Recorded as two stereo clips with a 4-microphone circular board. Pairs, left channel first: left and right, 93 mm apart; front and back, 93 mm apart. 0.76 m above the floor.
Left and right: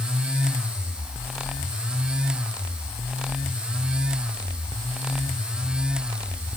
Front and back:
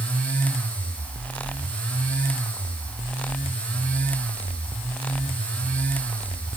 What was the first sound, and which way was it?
Only background noise.